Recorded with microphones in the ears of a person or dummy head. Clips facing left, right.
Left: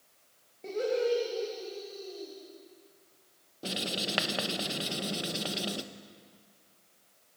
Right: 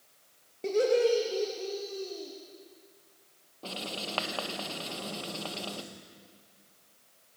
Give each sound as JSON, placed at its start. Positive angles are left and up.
{"t": 0.6, "sound": "laughter", "side_deg": -60, "distance_m": 2.5}
{"t": 3.6, "sound": "writing", "side_deg": 25, "distance_m": 0.9}